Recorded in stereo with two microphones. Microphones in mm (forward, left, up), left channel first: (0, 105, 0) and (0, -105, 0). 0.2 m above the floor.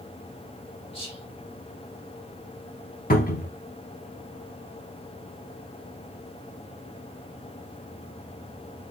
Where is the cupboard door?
45° left (ahead or behind), 0.8 m.